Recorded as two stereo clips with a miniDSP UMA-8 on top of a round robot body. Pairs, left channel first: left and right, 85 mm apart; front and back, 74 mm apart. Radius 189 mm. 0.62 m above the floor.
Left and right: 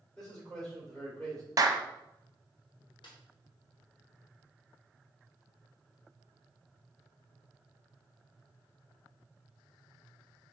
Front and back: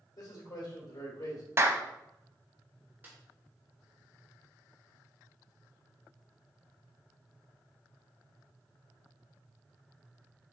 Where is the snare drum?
115° left, 0.8 m.